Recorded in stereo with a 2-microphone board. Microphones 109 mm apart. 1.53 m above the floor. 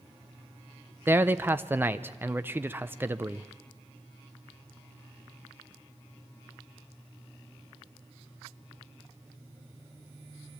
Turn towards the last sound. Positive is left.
turn(degrees=-20)  # may be behind; listen again after turning